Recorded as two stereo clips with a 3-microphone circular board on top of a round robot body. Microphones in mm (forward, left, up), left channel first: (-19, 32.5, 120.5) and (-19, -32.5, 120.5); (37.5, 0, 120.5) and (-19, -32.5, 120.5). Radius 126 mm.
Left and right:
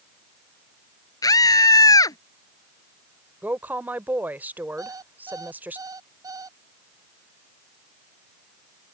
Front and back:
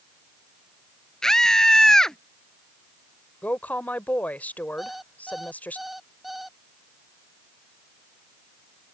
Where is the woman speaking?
35° right.